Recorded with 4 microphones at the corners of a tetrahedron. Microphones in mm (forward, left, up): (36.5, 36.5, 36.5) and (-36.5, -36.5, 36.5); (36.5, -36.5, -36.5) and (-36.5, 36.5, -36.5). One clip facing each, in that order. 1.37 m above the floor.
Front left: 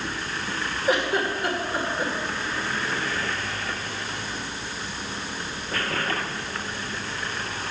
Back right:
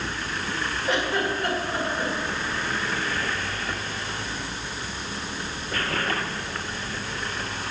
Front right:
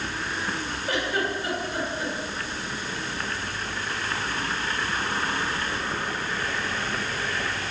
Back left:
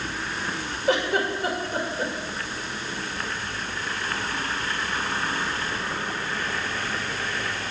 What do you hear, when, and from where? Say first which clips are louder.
0.9 s a giggle: front left 2 dB, back left 5 dB; 125° left, 2.5 m